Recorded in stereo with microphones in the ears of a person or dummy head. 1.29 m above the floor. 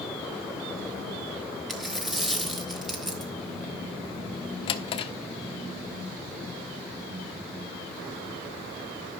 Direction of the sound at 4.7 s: 30° left (ahead or behind).